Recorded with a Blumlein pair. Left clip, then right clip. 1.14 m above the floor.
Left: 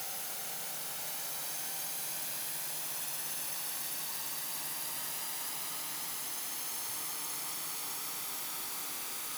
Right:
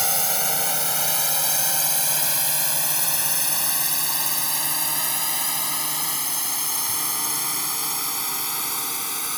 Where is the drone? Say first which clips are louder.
Right 18 dB; 50° right; by 9.4 s 55° right.